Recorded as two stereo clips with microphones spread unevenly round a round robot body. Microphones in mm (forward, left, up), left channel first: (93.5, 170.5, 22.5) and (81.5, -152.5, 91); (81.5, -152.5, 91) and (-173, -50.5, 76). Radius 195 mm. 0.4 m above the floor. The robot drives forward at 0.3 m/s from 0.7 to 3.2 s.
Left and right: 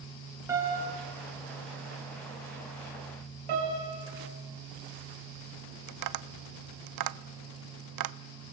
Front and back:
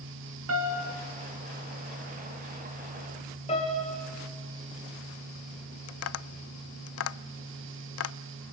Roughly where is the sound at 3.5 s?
Right.